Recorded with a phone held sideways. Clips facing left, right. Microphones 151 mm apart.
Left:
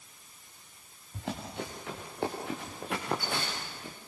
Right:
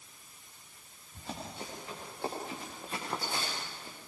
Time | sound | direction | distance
1.1 | running footsteps | 80° left | 8.5 m